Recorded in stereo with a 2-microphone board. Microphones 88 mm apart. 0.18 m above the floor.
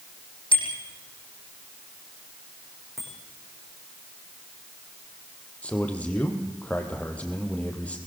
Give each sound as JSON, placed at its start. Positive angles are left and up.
{"t": 0.5, "sound": "a bicycle bell", "side_deg": 75, "distance_m": 5.5}
{"t": 3.0, "sound": "a bicycle bell", "side_deg": 0, "distance_m": 9.5}
{"t": 5.6, "sound": "a man speaking", "side_deg": 15, "distance_m": 4.5}